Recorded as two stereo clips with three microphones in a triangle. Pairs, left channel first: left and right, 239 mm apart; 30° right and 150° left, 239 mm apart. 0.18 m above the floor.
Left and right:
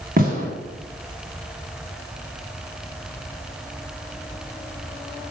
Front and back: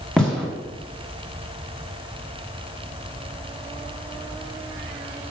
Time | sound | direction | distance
0.2 | a gunshot | 115° right | 2.0 m